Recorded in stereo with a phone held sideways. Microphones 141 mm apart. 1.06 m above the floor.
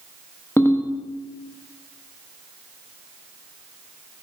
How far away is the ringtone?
About 0.8 m.